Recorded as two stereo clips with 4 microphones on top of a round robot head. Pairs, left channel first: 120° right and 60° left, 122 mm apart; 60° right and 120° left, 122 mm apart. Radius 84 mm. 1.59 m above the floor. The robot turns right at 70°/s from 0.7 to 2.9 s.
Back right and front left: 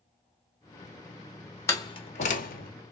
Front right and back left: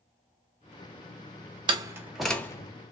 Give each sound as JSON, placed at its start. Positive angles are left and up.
{"t": 1.7, "sound": "a door slam", "azimuth_deg": 170, "distance_m": 0.6}